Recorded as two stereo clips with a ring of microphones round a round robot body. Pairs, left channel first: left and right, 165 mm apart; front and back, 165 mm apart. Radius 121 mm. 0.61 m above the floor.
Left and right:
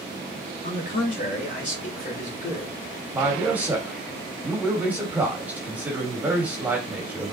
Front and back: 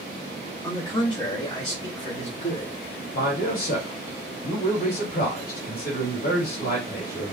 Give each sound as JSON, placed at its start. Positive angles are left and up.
{"t": 0.6, "sound": "a man speaking", "azimuth_deg": 65, "distance_m": 1.8}
{"t": 3.1, "sound": "a man speaking", "azimuth_deg": -10, "distance_m": 2.0}